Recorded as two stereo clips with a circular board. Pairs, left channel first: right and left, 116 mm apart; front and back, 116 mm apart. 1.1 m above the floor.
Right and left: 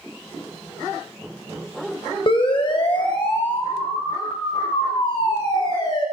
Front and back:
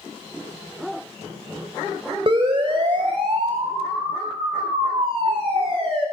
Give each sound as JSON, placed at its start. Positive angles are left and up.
{"t": 2.3, "sound": "a siren", "azimuth_deg": -135, "distance_m": 6.0}